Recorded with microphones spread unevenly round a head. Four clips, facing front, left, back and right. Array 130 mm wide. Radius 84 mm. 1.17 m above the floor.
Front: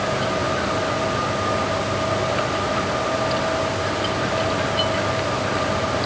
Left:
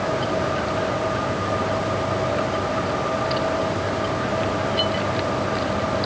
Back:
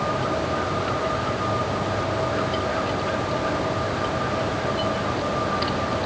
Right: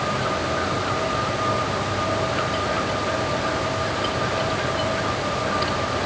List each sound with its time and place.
Only background noise.